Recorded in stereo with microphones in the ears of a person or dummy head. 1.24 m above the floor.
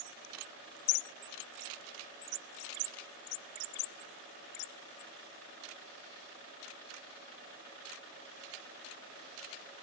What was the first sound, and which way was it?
Only background noise.